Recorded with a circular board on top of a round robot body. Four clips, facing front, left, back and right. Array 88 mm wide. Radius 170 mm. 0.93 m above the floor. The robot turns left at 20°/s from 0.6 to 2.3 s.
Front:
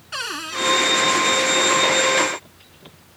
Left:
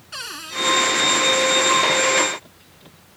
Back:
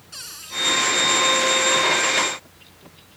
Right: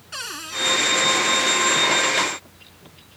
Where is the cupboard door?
5° right.